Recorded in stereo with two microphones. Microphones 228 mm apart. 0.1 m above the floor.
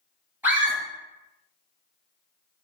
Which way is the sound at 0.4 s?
10° right (ahead or behind).